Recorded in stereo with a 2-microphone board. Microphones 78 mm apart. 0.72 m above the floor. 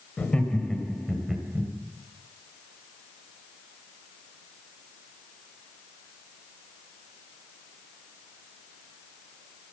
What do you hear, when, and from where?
0.2 s laughter: 15° left (ahead or behind), 3 m; by 1.7 s 10° right (ahead or behind), 3 m